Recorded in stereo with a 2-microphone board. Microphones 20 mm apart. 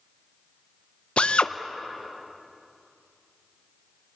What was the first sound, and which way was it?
A drill, 60° left (ahead or behind).